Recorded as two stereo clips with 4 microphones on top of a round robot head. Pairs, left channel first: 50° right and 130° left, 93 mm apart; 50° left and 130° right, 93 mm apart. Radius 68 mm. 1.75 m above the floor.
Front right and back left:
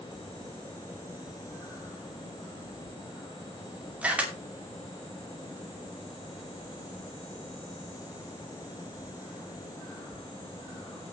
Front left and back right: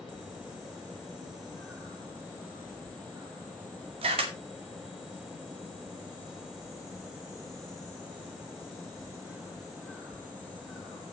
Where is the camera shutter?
155° right, 2.5 m.